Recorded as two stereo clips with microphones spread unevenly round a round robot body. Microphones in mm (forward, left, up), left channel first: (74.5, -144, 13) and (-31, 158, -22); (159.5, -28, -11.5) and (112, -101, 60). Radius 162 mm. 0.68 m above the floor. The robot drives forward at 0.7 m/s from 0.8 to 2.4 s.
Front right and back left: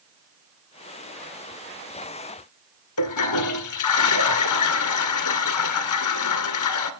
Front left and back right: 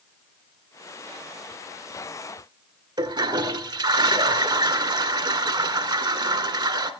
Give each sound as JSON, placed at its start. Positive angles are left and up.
{"t": 3.0, "sound": "a toilet flushing", "azimuth_deg": -105, "distance_m": 2.0}